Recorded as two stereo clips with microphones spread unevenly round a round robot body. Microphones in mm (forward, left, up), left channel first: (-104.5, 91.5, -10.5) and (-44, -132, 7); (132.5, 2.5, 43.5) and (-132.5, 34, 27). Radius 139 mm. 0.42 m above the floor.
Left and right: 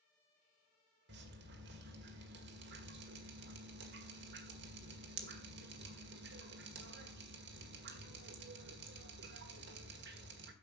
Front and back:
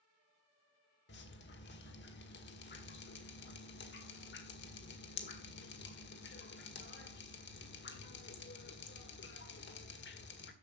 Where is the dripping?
45° right, 1.8 m.